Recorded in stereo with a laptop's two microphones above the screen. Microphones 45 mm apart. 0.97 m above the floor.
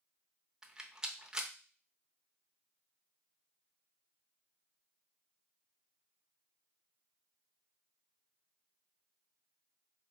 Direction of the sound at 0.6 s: 15° right (ahead or behind).